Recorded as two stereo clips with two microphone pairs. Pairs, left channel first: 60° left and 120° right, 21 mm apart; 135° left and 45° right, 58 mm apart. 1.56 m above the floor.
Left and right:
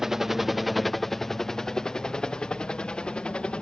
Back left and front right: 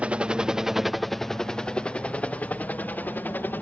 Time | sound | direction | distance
0.0 | a helicopter | 80° right | ?